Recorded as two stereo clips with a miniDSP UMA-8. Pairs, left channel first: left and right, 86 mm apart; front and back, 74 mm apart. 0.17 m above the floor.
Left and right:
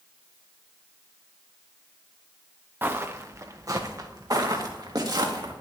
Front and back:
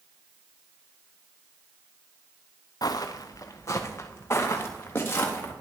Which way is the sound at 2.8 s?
25° right.